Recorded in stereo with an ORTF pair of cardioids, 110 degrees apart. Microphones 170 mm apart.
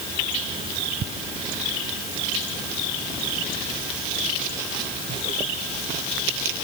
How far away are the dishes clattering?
I don't hear dishes clattering.